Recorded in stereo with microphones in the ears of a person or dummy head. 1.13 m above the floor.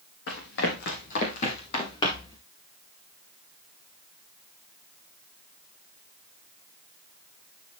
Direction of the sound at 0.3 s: 65° left (ahead or behind).